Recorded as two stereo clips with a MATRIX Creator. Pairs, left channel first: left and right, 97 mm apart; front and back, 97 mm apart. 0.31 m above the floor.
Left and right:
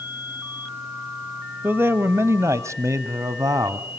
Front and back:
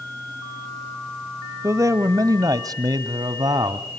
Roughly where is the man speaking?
Behind right.